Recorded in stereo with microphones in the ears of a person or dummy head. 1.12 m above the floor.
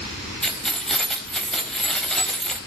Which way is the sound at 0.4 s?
Centre (ahead or behind).